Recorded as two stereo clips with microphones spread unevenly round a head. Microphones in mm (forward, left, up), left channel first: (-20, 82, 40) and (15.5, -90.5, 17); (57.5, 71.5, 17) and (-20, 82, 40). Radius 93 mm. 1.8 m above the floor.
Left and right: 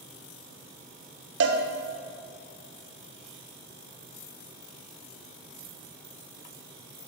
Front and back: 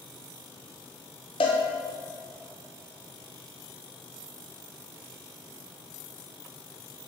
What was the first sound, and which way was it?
A cowbell, 55° right.